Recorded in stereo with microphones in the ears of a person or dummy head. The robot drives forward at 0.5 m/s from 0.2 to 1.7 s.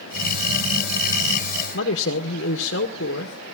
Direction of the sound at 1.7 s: 65° left (ahead or behind).